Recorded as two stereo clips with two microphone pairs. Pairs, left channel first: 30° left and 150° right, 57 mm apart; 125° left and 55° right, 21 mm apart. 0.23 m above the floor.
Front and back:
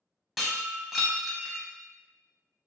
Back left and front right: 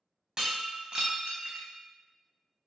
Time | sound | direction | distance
0.4 | breaking glass | 70° right | 0.7 m